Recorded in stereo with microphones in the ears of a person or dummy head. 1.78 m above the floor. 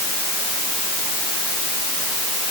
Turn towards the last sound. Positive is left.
No sound to turn to.